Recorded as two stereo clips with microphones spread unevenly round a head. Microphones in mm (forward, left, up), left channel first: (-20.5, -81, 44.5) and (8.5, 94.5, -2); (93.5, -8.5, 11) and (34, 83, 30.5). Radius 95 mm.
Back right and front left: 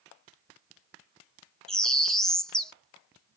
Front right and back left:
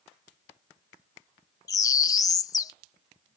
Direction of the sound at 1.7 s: 75° right.